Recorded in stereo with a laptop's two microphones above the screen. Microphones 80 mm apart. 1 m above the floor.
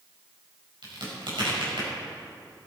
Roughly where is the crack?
Right.